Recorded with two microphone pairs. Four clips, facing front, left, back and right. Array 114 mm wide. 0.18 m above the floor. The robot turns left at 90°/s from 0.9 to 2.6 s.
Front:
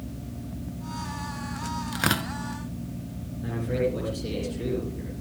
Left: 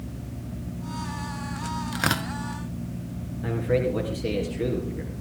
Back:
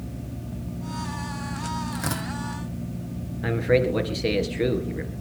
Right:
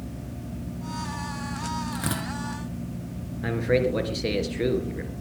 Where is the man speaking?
140° right, 3 m.